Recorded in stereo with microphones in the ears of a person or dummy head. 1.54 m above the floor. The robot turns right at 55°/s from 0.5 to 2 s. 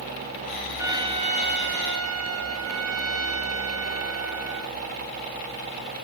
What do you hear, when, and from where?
0.8 s a trumpet: 165° right, 0.8 m; by 4.8 s 95° right, 0.8 m